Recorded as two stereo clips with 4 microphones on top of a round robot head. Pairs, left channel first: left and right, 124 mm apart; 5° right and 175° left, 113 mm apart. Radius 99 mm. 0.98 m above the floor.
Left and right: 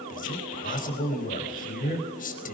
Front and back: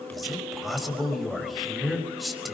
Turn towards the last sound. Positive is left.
turn(degrees=85)